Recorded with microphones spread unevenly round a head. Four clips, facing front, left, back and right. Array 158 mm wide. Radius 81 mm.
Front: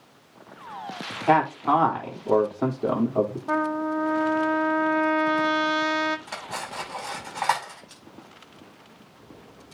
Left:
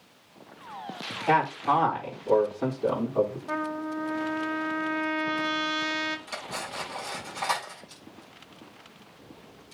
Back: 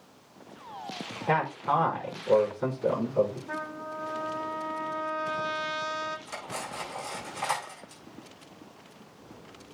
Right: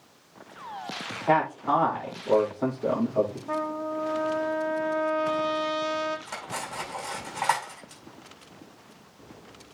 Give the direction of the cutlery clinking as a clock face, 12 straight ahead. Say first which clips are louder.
Right 1 dB, front 3 dB; 1 o'clock.